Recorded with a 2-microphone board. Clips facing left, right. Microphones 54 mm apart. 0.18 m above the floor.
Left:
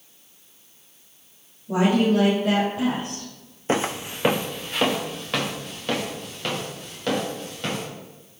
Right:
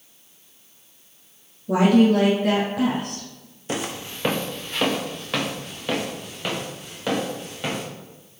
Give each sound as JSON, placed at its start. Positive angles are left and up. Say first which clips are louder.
{"t": 1.7, "sound": "a woman speaking", "louder": "right 3 dB", "side_deg": -60, "distance_m": 2.5}
{"t": 3.7, "sound": "footsteps", "louder": "left 5 dB", "side_deg": 30, "distance_m": 0.6}